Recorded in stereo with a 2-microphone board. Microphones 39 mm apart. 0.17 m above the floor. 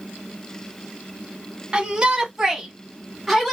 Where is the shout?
25° right (ahead or behind), 1.3 m; by 3.5 s centre (ahead or behind), 1.3 m.